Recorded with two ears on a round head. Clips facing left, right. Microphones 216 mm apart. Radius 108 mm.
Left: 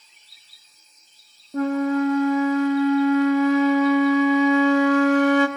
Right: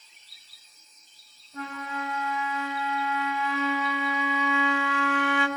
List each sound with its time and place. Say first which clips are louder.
1.5 s a flute: left 16 dB; 40° left (ahead or behind), 0.8 m